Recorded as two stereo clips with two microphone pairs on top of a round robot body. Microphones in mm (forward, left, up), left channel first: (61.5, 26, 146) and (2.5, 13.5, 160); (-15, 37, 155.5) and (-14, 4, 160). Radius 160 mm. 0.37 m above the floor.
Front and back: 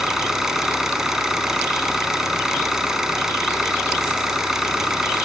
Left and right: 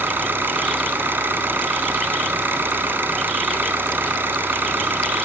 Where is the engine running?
85° right, 1.4 m.